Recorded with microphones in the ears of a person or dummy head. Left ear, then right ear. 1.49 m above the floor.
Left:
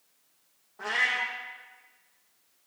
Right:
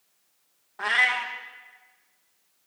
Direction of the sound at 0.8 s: 25° right (ahead or behind).